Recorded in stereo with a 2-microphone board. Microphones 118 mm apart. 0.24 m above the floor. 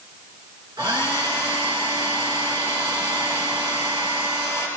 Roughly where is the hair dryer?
Right.